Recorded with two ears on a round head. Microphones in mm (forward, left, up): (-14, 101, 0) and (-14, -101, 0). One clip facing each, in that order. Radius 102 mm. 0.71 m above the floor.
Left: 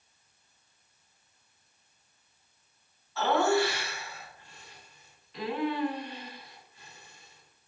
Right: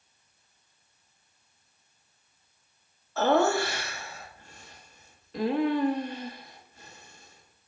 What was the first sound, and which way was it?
Laughter, 40° right (ahead or behind).